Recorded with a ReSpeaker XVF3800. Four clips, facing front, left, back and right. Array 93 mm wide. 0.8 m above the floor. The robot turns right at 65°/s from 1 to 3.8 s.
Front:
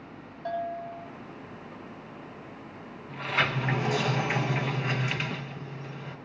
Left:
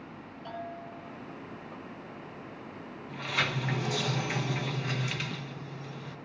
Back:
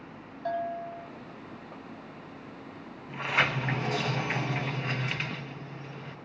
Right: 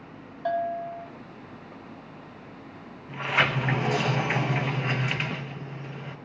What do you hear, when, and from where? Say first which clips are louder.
0.5 s a bell: right 13 dB, even; 85° right, 6 m; by 1.1 s 80° right, 6 m
3.1 s a sliding door: right 7 dB, even; 125° right, 1.1 m; by 6.2 s 80° right, 1.1 m